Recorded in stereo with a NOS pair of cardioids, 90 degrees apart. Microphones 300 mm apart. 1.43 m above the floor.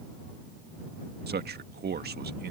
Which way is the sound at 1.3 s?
35° right.